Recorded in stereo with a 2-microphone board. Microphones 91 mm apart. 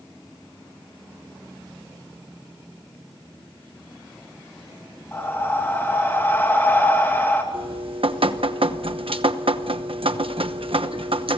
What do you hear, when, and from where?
5.1 s breathing: 25° left (ahead or behind), 2.5 m
7.5 s dripping: 75° right (ahead or behind), 1.0 m